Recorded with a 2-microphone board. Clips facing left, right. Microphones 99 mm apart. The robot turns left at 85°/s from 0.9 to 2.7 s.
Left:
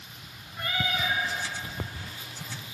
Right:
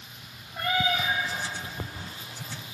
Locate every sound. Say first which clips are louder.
0.5 s a cat meowing: right 4 dB; 80° right, 3.5 m; by 1.2 s 55° right (ahead or behind), 3.5 m